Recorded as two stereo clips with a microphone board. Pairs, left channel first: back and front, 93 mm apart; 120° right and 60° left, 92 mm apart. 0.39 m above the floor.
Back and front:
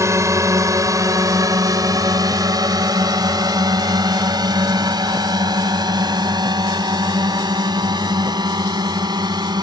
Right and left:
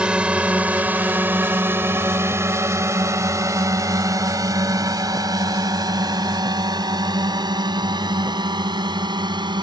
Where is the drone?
10° right; by 9.6 s 35° left.